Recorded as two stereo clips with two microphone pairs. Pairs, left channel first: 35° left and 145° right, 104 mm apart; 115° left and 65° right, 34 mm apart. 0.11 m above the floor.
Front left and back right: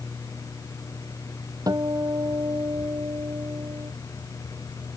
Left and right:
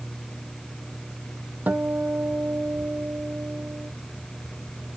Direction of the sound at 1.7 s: 90° right.